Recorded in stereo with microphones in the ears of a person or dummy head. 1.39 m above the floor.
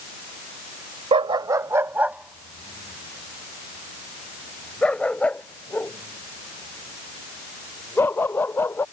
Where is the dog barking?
30° right (ahead or behind); by 8.8 s 10° left (ahead or behind).